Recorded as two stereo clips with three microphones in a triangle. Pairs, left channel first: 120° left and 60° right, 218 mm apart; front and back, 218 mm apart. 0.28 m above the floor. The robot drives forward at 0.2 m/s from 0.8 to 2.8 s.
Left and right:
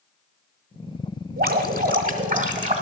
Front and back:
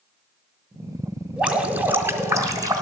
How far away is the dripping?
About 1.1 m.